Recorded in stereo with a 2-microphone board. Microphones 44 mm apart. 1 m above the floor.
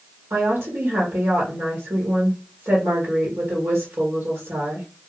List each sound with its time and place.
0.3 s a woman speaking: 70° right (ahead or behind), 1.1 m